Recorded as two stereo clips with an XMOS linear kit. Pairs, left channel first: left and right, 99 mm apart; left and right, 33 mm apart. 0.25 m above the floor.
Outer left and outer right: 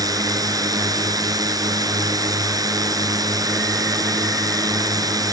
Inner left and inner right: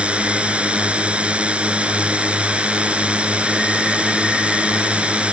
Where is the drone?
40° right (ahead or behind).